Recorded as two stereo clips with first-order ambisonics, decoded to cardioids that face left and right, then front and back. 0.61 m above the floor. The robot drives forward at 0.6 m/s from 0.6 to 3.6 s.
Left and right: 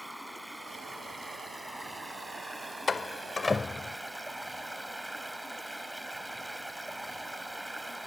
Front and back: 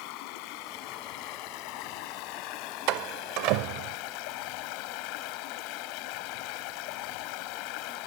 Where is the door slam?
165° left.